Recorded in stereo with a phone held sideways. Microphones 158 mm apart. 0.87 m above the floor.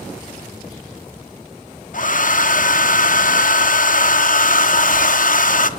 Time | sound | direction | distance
1.9 | a hair dryer | 55° left (ahead or behind) | 0.5 m